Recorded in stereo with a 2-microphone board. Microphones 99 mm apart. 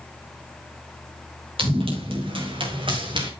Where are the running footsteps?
70° right (ahead or behind), 7.5 m; by 3.3 s 55° right (ahead or behind), 7.5 m.